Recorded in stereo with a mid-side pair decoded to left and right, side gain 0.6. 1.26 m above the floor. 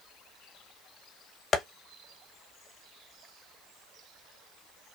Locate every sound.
1.5 s tapping: 35° left, 1.0 m